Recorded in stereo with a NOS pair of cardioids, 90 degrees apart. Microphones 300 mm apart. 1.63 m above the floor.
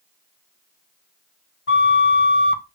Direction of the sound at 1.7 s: 35° left.